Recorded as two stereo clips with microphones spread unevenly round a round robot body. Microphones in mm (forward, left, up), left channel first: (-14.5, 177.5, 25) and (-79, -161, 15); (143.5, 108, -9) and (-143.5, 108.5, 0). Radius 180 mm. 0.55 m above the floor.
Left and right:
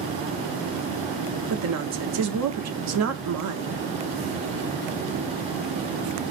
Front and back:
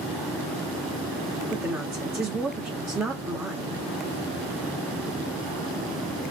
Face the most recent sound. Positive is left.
turn(degrees=-100)